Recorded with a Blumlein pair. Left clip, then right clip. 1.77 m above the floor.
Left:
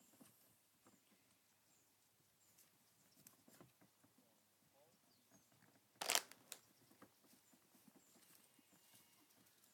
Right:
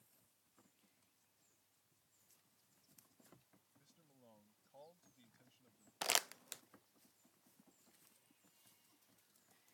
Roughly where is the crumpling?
Ahead.